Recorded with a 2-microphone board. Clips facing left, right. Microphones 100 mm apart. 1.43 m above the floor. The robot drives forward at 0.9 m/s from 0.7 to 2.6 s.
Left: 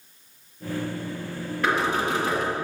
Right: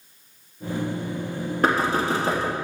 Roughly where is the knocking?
Right.